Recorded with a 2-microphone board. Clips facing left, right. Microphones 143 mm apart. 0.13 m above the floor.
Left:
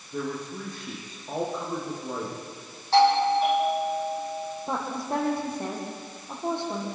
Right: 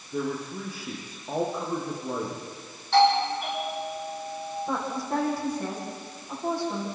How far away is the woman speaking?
About 7 m.